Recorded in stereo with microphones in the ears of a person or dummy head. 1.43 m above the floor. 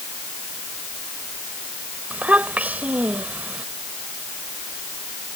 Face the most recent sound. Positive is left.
turn(degrees=-5)  # may be behind; listen again after turning